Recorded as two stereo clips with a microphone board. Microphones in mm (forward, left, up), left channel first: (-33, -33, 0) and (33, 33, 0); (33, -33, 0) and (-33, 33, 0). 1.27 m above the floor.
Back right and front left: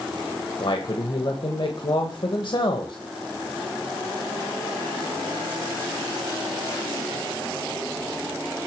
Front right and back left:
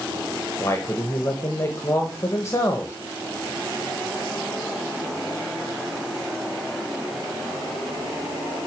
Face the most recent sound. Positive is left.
turn(degrees=-105)